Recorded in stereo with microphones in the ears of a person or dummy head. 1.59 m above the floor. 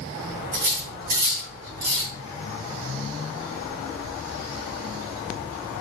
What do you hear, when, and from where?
0.5 s cutlery clinking: 45° right (ahead or behind), 1.5 m